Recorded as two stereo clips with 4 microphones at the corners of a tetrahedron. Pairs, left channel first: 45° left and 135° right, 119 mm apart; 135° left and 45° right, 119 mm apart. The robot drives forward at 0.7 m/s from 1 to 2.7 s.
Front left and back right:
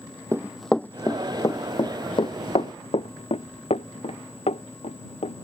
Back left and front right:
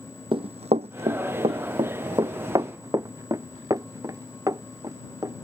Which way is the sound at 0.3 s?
80° right.